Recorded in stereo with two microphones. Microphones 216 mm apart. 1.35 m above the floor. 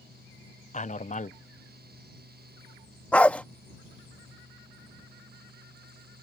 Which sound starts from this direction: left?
A man speaking, at 0.7 s.